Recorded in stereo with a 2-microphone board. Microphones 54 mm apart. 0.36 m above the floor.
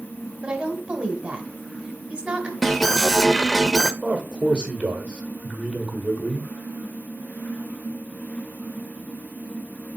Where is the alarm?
5° left (ahead or behind), 0.5 m.